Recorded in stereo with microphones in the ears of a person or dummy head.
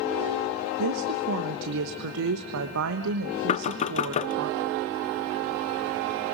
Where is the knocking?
30° left (ahead or behind), 0.6 m.